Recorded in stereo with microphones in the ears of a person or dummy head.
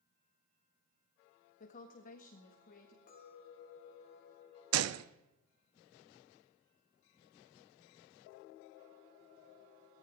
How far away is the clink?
About 2.5 m.